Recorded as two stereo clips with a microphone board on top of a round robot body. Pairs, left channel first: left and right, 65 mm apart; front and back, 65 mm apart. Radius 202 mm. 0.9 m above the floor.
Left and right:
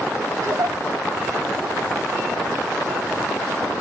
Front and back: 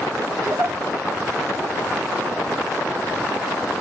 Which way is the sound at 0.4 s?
140° right.